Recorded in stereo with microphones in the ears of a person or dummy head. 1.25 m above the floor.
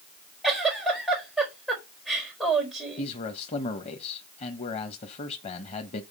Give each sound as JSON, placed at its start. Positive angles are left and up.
{"t": 0.4, "sound": "a giggle", "side_deg": -5, "distance_m": 4.0}
{"t": 3.0, "sound": "a man speaking", "side_deg": 40, "distance_m": 1.2}